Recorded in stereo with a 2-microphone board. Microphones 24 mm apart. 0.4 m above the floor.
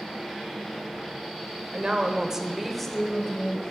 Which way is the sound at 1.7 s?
50° right (ahead or behind).